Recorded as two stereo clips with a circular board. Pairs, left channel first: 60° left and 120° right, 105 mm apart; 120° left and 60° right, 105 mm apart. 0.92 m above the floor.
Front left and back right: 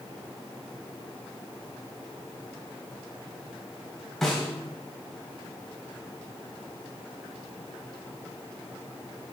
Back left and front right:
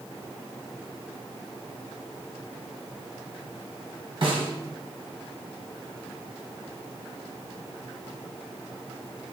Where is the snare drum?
25° right, 1.5 m.